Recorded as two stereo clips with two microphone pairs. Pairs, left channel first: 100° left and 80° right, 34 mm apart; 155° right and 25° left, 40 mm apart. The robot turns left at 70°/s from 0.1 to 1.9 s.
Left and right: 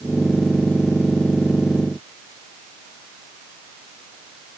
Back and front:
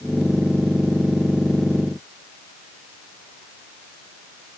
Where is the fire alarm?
No fire alarm in this recording.